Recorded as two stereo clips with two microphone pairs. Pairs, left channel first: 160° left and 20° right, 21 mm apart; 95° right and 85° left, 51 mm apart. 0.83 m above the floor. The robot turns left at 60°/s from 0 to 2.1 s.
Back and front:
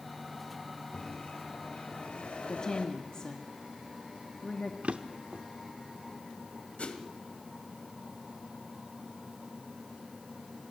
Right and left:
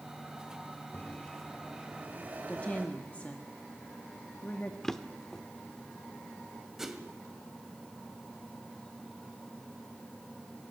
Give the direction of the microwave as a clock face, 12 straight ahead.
5 o'clock.